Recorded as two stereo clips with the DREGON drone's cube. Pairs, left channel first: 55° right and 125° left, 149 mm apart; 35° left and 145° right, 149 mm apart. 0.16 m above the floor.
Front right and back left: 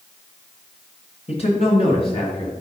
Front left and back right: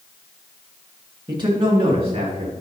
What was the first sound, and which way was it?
A man speaking, 90° right.